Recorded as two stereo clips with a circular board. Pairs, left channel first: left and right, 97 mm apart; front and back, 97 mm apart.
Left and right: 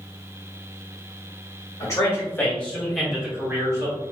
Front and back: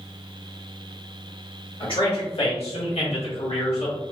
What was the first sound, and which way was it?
A man speaking, 30° left.